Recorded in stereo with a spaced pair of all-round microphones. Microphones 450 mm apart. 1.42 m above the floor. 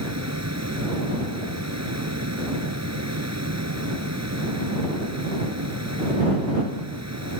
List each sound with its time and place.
0.0 s a fan: 35° right (ahead or behind)